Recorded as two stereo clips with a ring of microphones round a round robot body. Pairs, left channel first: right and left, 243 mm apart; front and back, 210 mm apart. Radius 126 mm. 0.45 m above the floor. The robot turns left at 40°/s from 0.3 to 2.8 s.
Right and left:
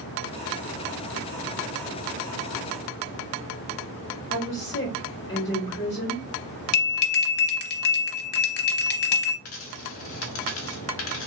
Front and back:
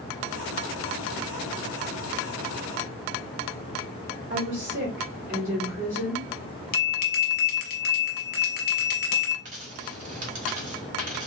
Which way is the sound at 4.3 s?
150° right.